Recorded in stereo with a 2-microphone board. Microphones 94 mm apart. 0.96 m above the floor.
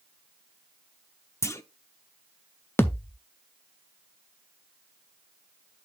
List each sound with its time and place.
1.4 s a clunk: 30° left (ahead or behind), 0.5 m
2.8 s a thud: 25° left (ahead or behind), 0.5 m